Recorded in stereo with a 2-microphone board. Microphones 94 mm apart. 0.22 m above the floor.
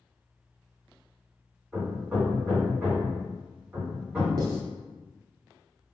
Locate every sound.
1.7 s hammering: 15° right (ahead or behind), 1.9 m
4.4 s writing: 50° right (ahead or behind), 0.5 m